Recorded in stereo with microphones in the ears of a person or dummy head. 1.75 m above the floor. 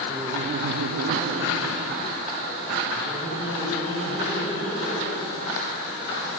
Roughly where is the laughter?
Right.